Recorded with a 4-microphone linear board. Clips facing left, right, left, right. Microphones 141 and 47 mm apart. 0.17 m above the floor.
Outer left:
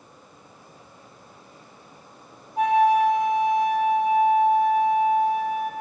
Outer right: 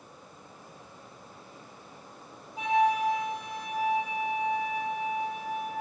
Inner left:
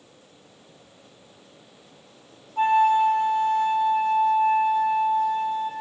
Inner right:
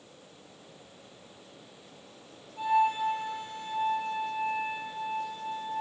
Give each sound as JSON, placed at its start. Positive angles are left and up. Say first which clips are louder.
{"t": 2.6, "sound": "a flute", "louder": "outer left 7 dB, inner left 8 dB", "side_deg": 55, "distance_m": 5.0}